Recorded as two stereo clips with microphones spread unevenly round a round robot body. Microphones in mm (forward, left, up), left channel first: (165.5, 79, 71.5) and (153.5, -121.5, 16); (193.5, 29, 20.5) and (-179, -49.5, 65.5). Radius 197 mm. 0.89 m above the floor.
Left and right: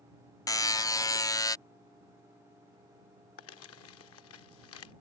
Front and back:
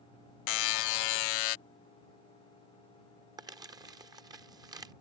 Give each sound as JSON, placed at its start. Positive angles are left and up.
{"t": 0.5, "sound": "a buzzer", "azimuth_deg": 15}
{"t": 3.4, "sound": "crumpling", "azimuth_deg": 110}